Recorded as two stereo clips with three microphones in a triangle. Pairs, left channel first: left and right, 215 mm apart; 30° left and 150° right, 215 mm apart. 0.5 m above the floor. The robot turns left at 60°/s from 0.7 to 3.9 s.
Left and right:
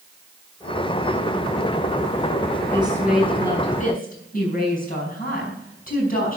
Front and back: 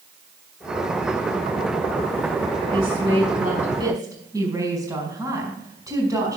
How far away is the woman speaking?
About 5 m.